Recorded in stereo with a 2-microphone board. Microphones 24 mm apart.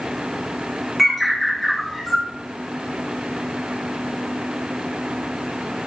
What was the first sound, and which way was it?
A bird, 5° left (ahead or behind).